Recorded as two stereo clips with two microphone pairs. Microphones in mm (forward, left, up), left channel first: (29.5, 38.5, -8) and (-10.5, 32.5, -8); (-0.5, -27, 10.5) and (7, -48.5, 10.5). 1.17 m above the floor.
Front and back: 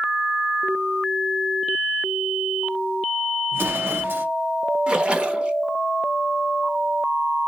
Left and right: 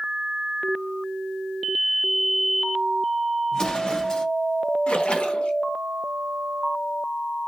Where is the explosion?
170° left, 0.6 m.